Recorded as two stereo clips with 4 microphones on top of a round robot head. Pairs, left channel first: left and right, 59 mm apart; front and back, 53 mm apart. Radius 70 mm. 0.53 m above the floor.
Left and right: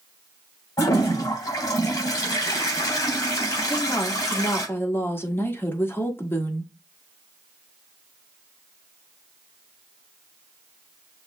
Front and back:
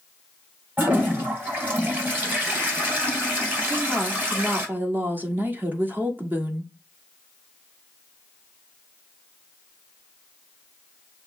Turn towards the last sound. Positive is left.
turn(degrees=135)